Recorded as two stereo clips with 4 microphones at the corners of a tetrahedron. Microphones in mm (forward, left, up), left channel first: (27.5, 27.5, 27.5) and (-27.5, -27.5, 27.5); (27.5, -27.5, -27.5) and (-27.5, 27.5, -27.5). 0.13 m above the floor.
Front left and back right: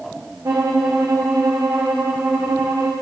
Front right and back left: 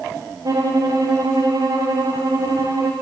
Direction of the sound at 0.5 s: 175° left.